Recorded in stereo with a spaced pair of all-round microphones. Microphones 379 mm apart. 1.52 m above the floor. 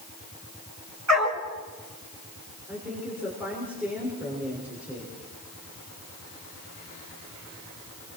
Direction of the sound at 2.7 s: 5° right (ahead or behind).